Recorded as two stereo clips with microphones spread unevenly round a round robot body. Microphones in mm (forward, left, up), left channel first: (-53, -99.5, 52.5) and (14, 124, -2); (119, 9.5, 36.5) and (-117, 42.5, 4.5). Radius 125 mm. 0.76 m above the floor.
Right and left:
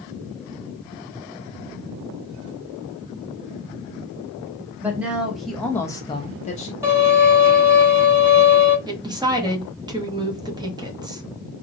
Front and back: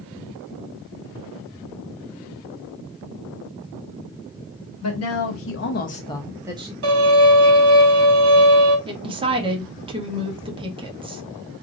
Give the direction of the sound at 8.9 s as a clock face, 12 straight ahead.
8 o'clock.